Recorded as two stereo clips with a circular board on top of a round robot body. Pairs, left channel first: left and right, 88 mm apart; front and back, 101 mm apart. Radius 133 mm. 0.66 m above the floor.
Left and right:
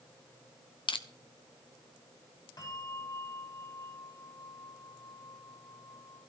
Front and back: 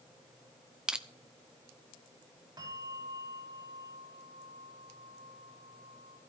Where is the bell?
130° left, 5.5 m.